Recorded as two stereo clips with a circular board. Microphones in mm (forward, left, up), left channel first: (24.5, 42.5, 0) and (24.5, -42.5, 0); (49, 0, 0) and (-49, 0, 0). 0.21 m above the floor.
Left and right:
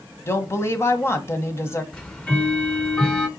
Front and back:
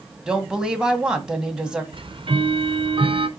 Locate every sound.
0.3 s a woman speaking: 105° left, 1.5 m
1.9 s ticking: 165° left, 1.0 m